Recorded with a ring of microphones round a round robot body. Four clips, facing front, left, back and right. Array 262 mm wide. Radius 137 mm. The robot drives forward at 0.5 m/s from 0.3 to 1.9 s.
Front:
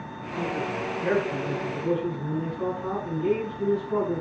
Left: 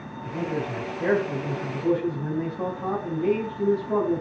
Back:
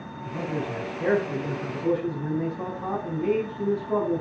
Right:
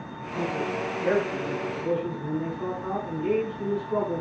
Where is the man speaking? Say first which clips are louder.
Even, front 1 dB; 125° left, 4.5 m; by 4.2 s 135° left, 5 m.